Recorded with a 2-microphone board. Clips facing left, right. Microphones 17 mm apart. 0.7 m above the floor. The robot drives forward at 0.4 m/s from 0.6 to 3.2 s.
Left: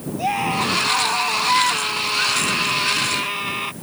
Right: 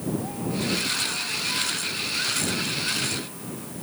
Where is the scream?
65° left (ahead or behind).